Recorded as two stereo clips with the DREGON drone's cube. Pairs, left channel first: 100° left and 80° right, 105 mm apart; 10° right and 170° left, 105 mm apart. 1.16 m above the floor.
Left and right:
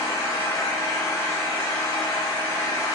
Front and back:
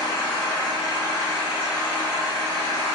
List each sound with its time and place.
0.0 s an engine running: 35° left, 1.3 m